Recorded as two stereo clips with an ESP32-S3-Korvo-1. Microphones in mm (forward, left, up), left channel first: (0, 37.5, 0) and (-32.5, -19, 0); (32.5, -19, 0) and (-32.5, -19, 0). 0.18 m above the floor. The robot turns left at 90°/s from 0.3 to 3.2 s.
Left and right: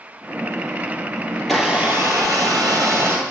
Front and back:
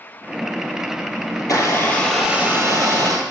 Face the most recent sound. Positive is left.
turn(degrees=180)